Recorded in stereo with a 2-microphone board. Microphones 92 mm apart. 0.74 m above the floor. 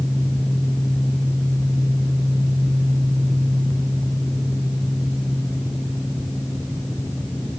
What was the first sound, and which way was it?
Only background noise.